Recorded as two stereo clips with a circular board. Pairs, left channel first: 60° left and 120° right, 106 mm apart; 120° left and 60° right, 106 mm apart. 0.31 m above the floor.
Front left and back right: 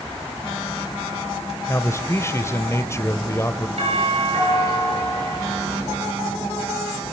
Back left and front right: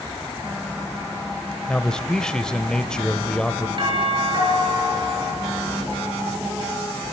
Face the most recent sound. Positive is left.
turn(degrees=-100)